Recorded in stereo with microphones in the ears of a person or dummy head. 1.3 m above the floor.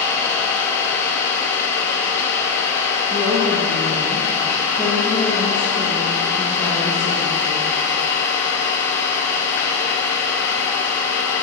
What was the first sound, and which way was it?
An engine running, 10° left (ahead or behind).